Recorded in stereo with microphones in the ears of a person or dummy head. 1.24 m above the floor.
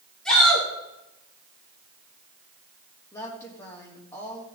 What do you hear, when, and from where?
0.2 s a shout: 10° left (ahead or behind), 4 m
3.1 s a woman speaking: 20° left (ahead or behind), 3 m